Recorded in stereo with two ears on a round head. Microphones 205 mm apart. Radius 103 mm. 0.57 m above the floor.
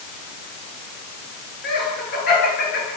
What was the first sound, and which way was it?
Laughter, 45° left (ahead or behind).